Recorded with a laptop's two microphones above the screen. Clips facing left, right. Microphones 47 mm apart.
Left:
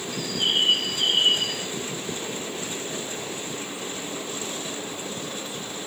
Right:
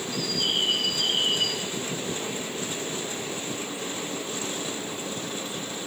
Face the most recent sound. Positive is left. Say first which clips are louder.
# left 3 dB
turn(degrees=45)  # may be behind; listen again after turning